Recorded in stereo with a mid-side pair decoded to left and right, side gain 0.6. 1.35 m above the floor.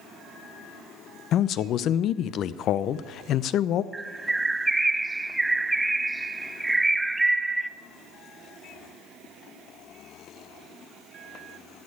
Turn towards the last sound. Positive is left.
turn(degrees=-10)